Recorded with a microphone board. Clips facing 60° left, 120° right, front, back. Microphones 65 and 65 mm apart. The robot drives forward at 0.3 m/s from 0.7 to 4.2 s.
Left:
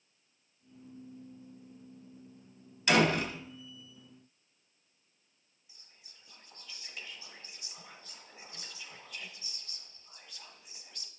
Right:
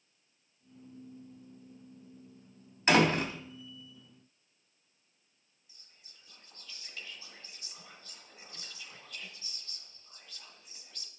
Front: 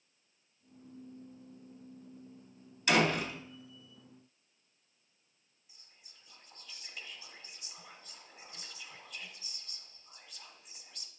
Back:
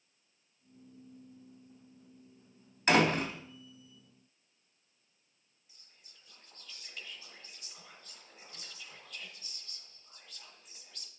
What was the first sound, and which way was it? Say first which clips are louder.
A door slam: right 1 dB, back 2 dB; 155° right.